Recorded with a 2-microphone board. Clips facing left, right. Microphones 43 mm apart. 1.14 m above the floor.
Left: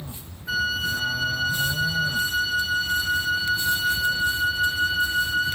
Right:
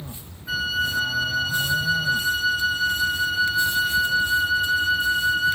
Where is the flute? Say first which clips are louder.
Even; 5° right (ahead or behind), 0.9 m.